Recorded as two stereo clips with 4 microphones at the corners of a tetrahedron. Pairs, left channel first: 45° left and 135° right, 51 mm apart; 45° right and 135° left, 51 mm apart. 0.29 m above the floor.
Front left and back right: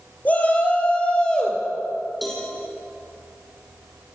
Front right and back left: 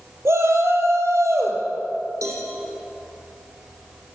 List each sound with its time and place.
0.2 s a shout: 105° left, 6 m; by 1.6 s 120° left, 5.5 m
2.2 s a cowbell: 135° left, 6.5 m